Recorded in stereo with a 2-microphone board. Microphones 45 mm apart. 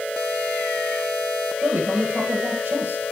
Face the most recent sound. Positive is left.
turn(degrees=-50)  # may be behind; listen again after turning